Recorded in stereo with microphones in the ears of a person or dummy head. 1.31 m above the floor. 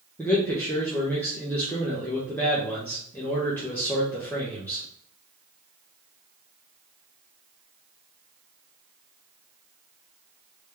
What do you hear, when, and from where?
0.2 s a man speaking: 10° left (ahead or behind), 1.1 m